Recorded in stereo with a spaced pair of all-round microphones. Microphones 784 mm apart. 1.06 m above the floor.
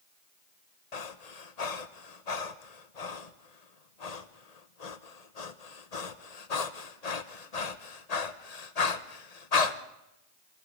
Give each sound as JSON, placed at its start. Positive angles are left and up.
{"t": 0.9, "sound": "breathing", "side_deg": 55, "distance_m": 1.2}